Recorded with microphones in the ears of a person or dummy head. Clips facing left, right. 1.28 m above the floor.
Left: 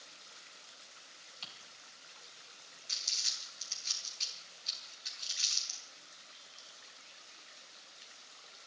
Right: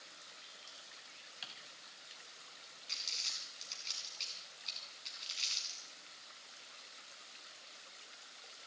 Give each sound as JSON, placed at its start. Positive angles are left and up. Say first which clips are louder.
{"t": 1.4, "sound": "typing on a keyboard", "louder": "left 1 dB", "side_deg": -10, "distance_m": 3.5}
{"t": 2.9, "sound": "crumpling", "louder": "even", "side_deg": 15, "distance_m": 5.0}